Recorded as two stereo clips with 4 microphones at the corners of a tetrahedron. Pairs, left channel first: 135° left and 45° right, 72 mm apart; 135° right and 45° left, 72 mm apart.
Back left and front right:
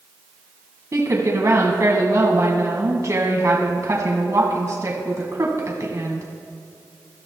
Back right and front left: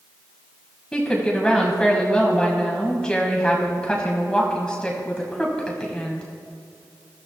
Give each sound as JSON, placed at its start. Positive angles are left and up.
{"t": 0.9, "sound": "a woman speaking", "azimuth_deg": -60, "distance_m": 1.8}